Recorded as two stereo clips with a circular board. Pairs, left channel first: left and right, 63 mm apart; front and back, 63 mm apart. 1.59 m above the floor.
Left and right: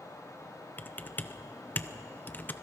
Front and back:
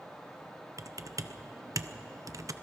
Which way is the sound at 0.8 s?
150° left.